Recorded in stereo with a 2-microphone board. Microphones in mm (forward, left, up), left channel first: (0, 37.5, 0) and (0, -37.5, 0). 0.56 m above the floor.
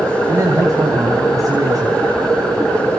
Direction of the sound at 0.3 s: 45° right (ahead or behind).